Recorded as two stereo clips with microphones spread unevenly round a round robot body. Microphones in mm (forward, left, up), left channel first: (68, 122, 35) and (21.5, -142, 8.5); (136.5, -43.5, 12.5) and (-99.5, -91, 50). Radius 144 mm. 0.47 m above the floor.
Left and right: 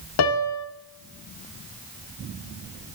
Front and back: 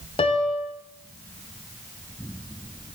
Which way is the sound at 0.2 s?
65° left.